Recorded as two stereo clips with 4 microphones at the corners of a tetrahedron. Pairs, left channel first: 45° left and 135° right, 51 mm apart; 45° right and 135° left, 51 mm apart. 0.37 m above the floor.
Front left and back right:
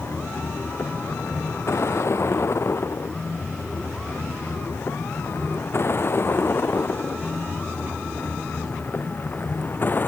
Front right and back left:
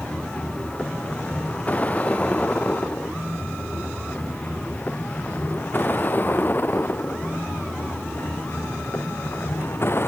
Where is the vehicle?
20° left; by 10.1 s 5° right.